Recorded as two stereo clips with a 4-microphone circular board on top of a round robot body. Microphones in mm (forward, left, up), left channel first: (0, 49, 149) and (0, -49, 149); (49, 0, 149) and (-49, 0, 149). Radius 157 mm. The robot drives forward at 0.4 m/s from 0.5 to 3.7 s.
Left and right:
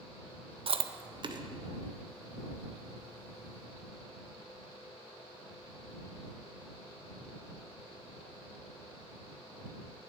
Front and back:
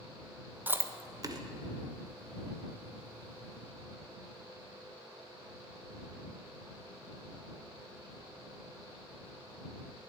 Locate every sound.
0.7 s chewing: 110° right, 0.6 m; by 1.4 s 130° right, 0.7 m